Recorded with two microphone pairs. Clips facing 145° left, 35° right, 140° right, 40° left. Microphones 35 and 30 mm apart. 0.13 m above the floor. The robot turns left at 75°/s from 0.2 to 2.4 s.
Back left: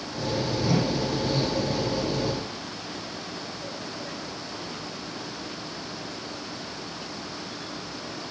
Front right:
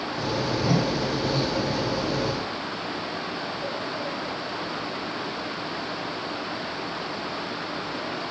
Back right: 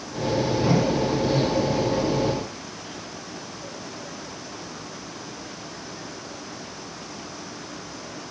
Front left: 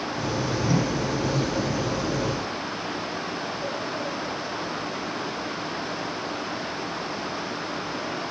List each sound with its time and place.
0.6 s a whoosh: 95° right, 5 m; by 1.1 s 130° right, 5 m